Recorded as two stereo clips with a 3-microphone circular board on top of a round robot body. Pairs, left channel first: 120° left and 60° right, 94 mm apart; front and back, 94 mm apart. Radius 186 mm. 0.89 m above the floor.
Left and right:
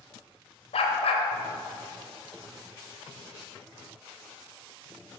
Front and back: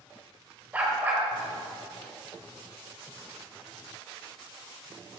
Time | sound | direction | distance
0.7 | a dog barking | 105° left | 1.1 m